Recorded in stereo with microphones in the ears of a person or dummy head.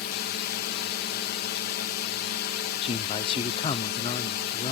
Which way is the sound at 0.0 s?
65° left (ahead or behind).